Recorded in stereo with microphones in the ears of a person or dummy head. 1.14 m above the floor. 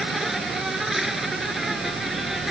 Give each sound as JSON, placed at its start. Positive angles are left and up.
{"t": 0.0, "sound": "an insect", "side_deg": -5}